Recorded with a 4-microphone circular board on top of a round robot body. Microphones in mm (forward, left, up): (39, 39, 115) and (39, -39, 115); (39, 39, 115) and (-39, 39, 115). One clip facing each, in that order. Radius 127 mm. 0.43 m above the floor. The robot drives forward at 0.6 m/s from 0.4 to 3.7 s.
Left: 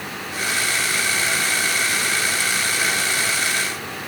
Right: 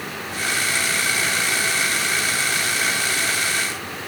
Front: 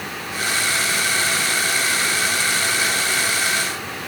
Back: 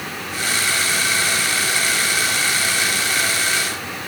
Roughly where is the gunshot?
I don't hear a gunshot.